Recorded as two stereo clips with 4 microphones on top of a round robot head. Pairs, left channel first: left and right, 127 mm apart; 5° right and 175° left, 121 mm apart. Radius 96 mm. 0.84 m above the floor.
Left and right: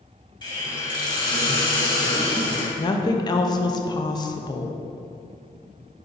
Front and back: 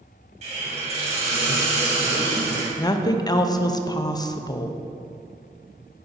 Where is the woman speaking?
45° left, 0.6 m.